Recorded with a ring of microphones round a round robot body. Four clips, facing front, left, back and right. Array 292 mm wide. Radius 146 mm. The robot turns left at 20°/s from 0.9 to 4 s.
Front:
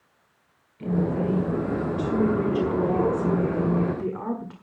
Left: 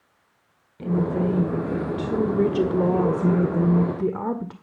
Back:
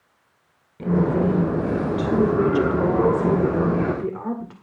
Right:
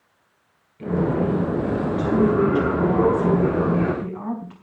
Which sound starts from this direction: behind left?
A woman speaking, at 0.8 s.